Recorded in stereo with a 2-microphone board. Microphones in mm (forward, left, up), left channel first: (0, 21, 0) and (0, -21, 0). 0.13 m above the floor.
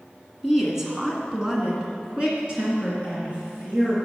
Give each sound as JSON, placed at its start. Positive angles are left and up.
{"t": 0.4, "sound": "a woman speaking", "side_deg": -5, "distance_m": 1.5}